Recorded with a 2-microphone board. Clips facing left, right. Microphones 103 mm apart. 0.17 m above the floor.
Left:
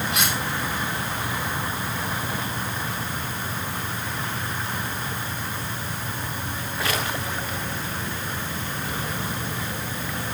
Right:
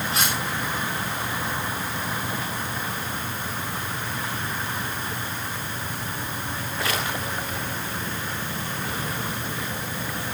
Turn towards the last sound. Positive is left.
turn(degrees=-35)  # may be behind; listen again after turning